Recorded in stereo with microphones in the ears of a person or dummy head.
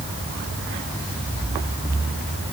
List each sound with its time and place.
Only background noise.